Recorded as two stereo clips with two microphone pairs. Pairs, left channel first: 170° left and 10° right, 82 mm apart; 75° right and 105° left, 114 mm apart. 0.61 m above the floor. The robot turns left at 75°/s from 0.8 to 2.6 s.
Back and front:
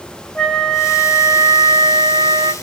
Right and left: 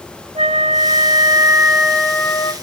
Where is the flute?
95° left, 0.9 m; by 2.5 s 35° right, 0.9 m.